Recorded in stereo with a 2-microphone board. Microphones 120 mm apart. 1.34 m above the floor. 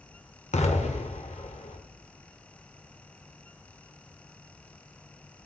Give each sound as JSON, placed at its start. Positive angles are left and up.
{"t": 0.5, "sound": "an explosion", "side_deg": 75, "distance_m": 2.5}